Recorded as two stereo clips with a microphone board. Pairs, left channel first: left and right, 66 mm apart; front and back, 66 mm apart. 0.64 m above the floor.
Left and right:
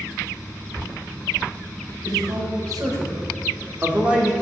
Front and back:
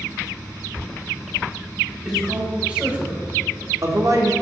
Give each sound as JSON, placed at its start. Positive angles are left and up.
{"t": 2.0, "sound": "a man speaking", "azimuth_deg": -100, "distance_m": 3.5}